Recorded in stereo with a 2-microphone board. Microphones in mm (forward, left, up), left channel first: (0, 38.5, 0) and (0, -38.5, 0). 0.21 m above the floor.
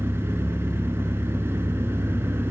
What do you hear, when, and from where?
0.0 s an engine running: 35° right (ahead or behind), 1.1 m